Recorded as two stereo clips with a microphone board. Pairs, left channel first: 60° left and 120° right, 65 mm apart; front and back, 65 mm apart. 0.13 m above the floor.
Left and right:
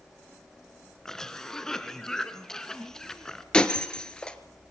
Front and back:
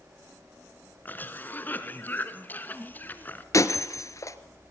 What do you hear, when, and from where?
1.1 s a cough: 10° right, 1.7 m
3.5 s breaking glass: 10° right, 1.3 m